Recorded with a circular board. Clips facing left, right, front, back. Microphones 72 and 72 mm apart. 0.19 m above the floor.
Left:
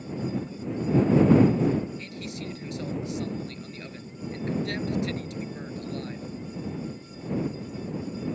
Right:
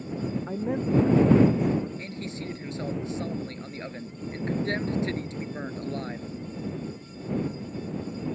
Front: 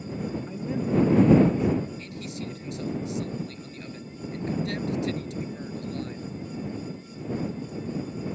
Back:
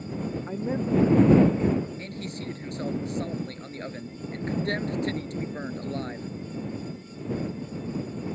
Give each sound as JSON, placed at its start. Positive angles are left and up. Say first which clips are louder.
{"t": 0.5, "sound": "a man speaking", "louder": "right 2 dB, back 2 dB", "azimuth_deg": -125}
{"t": 2.0, "sound": "a man speaking", "louder": "right 1 dB, even", "azimuth_deg": -145}